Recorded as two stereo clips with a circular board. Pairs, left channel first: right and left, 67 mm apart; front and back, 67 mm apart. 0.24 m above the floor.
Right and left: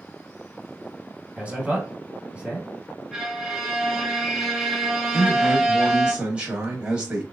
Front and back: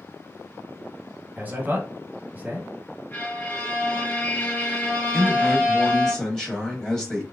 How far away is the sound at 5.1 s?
About 1.0 m.